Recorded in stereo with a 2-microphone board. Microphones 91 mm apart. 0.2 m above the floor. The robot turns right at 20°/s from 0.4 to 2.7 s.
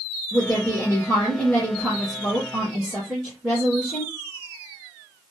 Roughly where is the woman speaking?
Behind left.